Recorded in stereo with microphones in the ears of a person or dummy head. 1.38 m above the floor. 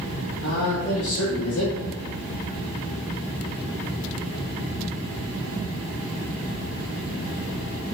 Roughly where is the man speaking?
Left.